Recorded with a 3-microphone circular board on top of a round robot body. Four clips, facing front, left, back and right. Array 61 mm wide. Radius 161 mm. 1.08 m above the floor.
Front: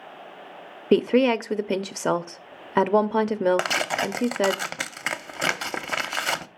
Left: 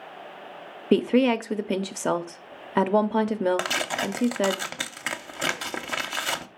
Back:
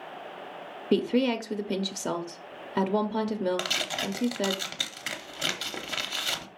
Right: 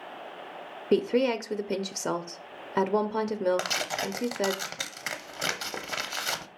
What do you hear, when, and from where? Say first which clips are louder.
0.9 s a woman speaking: left 4 dB, front 6 dB; 20° left, 0.6 m
3.6 s tearing paper: left 4 dB, front 7 dB; 15° left, 0.6 m